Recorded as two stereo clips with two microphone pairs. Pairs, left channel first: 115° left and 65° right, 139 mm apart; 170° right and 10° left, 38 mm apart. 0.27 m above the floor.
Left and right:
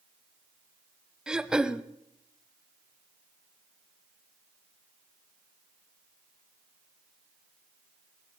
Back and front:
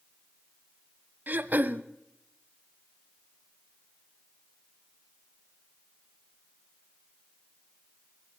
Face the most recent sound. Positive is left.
turn(degrees=20)